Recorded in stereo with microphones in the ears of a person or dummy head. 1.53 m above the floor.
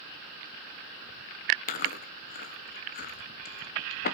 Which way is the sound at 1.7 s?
40° left (ahead or behind).